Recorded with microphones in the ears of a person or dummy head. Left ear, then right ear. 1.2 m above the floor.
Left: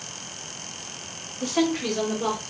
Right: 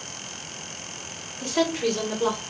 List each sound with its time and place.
1.4 s a woman speaking: 20° left (ahead or behind), 1.0 m; by 2.4 s 25° right (ahead or behind), 1.8 m